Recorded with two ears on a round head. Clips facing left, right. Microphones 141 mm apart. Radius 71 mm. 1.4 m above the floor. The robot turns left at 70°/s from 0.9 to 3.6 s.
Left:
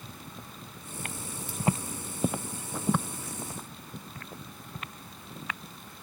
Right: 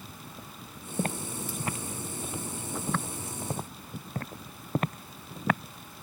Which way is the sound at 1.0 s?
35° right (ahead or behind).